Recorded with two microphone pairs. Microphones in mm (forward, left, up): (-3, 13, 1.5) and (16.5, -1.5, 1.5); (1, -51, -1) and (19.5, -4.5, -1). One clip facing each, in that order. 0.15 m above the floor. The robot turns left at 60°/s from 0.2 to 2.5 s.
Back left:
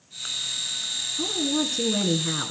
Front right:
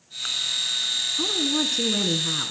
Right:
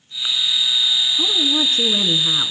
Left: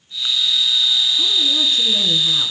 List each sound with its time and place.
1.2 s a woman speaking: 65° right, 1.5 m; by 2.5 s 145° right, 1.5 m